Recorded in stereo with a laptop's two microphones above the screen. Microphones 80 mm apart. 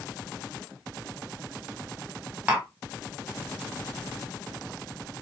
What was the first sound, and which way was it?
Tapping, 15° right (ahead or behind).